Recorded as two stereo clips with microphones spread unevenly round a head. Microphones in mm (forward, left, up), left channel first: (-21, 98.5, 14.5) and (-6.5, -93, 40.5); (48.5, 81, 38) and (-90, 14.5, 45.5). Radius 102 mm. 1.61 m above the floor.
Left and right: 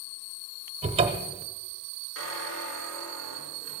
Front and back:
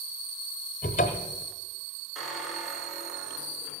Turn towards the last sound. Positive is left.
turn(degrees=120)